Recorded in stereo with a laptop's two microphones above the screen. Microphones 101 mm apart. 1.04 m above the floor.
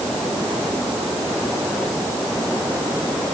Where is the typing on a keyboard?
I don't hear typing on a keyboard.